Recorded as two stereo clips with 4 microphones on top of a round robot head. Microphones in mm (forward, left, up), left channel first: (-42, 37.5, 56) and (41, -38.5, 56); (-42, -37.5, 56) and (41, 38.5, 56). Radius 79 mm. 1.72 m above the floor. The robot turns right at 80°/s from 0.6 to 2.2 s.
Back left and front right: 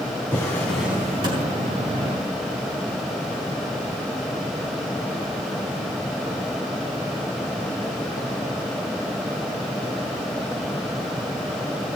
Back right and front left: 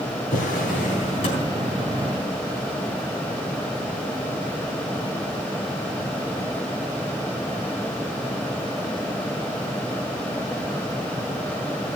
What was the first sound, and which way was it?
A drawer, 150° right.